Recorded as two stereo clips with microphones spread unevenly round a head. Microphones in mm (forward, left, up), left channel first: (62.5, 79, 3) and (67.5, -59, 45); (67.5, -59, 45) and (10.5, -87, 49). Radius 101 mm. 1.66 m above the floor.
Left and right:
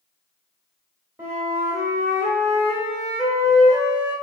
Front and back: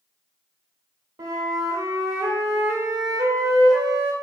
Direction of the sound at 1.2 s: 165° right.